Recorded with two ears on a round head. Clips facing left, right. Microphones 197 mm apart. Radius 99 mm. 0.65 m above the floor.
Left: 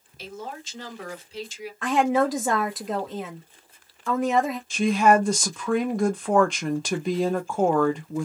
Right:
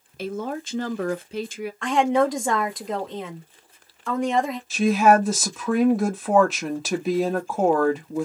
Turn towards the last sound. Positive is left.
turn(degrees=-5)  # may be behind; listen again after turning